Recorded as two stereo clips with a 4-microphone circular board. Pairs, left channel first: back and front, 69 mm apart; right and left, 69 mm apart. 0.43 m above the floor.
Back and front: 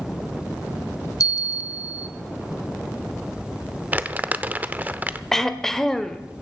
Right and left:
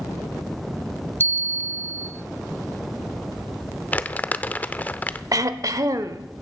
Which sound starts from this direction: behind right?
A bell, at 1.2 s.